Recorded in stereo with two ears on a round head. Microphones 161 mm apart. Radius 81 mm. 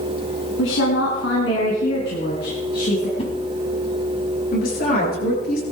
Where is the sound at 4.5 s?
55° left (ahead or behind), 8.5 m.